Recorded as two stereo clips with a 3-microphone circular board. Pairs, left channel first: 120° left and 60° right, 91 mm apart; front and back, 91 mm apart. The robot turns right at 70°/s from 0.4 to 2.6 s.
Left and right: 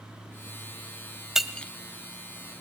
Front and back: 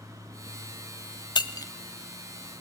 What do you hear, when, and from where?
1.4 s breaking glass: 25° left, 1.1 m; by 1.7 s 50° left, 1.1 m